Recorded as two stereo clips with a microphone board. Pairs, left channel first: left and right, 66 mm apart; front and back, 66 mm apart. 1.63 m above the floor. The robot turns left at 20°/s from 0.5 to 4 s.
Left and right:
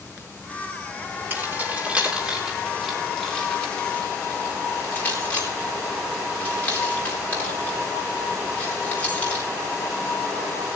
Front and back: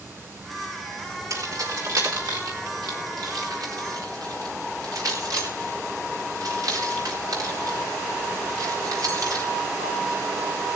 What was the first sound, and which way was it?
Keys jangling, 150° right.